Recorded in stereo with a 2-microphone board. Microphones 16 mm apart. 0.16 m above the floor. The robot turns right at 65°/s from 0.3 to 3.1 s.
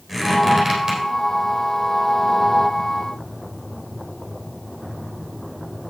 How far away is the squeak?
About 4 m.